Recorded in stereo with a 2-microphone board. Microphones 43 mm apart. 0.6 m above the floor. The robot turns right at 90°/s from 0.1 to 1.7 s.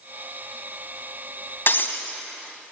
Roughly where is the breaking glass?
Left.